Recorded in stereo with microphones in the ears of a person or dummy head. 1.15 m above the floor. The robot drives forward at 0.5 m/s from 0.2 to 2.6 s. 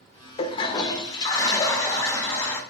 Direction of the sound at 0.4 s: 30° left (ahead or behind).